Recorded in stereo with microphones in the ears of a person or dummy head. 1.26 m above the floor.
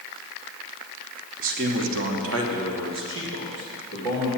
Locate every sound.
1.4 s a man speaking: 45° right (ahead or behind), 1.4 m; by 4.3 s 55° right (ahead or behind), 3 m